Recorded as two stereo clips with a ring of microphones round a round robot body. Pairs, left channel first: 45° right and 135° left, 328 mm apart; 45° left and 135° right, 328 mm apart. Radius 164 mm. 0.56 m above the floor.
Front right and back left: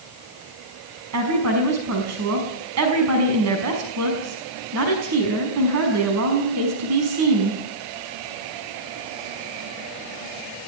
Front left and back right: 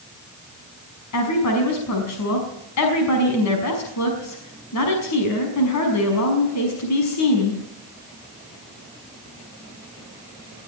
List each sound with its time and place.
1.1 s a woman speaking: 90° left, 5.5 m